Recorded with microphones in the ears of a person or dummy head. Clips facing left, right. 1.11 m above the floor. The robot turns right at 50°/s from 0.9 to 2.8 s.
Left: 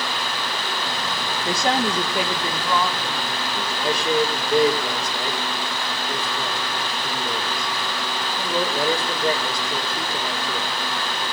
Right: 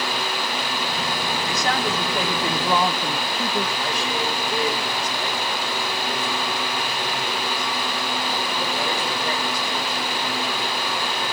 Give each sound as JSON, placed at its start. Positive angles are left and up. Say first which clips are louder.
{"t": 1.4, "sound": "a woman speaking", "louder": "left 4 dB", "azimuth_deg": 145, "distance_m": 1.2}
{"t": 3.8, "sound": "a man speaking", "louder": "left 5 dB", "side_deg": 60, "distance_m": 3.5}